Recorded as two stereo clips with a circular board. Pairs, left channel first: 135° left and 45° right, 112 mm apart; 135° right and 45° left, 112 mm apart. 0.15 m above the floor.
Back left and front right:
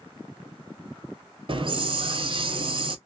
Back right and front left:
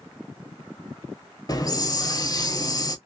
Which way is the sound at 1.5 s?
80° right.